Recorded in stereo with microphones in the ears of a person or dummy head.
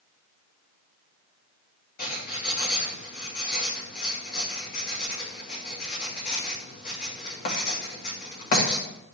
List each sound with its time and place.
2.0 s writing: 55° left (ahead or behind), 3 m